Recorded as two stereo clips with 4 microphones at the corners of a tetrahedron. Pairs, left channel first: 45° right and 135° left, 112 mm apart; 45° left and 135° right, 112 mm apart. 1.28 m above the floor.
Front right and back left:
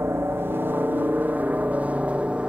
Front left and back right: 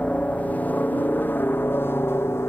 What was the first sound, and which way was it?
A helicopter, 105° left.